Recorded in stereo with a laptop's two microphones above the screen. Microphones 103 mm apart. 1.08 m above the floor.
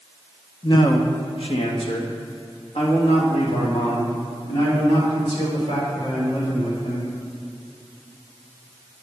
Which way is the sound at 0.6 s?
45° left (ahead or behind).